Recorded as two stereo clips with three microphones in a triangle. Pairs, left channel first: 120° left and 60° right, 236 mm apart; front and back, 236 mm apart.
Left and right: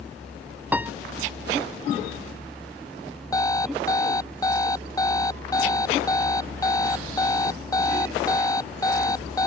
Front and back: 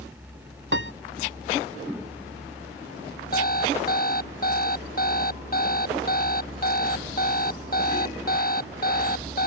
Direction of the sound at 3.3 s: 45° left.